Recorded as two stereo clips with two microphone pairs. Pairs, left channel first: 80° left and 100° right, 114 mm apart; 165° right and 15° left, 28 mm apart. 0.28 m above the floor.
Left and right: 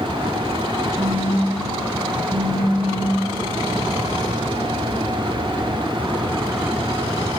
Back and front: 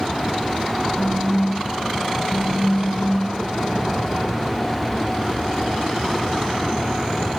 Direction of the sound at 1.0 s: 65° right.